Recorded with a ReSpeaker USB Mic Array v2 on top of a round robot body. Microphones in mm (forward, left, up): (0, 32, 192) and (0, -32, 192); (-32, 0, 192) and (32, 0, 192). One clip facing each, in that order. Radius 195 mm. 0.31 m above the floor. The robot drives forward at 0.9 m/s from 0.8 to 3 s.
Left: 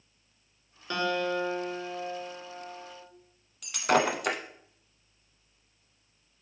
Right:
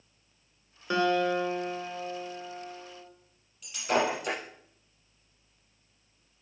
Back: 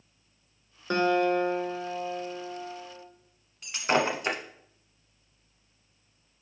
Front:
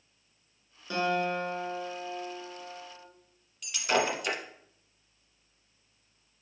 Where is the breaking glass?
120° left, 1.0 m.